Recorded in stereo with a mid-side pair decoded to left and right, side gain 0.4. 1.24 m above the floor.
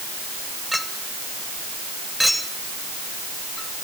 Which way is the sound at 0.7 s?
5° left.